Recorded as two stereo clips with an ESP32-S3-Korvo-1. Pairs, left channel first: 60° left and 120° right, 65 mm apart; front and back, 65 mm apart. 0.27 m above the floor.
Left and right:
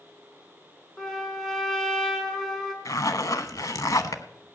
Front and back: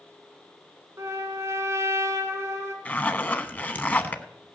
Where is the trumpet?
145° left, 3.5 m.